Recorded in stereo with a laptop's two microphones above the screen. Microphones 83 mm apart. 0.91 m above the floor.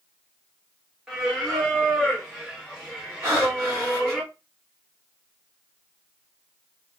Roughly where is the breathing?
Right.